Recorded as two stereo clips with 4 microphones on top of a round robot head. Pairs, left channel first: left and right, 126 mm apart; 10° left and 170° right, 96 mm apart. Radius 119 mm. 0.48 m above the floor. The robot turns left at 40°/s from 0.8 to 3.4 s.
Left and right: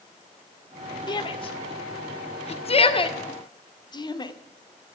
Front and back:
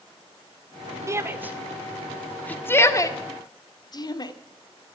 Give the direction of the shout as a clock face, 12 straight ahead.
7 o'clock.